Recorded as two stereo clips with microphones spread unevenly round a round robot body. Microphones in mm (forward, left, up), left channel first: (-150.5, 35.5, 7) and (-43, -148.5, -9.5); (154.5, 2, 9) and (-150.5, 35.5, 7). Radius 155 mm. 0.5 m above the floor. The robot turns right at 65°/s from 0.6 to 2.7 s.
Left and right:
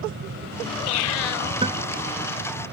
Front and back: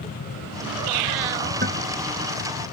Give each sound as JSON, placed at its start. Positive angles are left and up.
{"t": 1.6, "sound": "a guitar", "azimuth_deg": -125}